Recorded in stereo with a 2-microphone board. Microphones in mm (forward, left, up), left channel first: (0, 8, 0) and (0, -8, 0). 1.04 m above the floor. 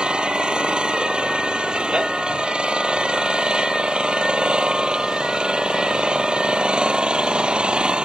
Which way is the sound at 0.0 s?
80° right.